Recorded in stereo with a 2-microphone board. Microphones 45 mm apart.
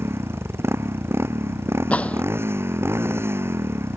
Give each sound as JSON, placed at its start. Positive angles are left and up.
{"t": 0.0, "sound": "a motorcycle", "side_deg": -75}
{"t": 1.9, "sound": "a gunshot", "side_deg": 30}